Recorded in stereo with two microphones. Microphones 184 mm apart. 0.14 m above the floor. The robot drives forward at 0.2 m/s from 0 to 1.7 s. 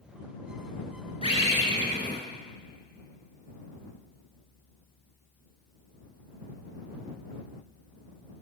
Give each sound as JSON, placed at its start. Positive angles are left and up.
{"t": 1.2, "sound": "a bird", "side_deg": 35, "distance_m": 0.9}